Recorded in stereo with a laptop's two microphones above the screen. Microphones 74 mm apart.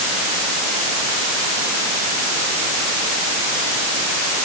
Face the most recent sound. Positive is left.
No sound to turn to.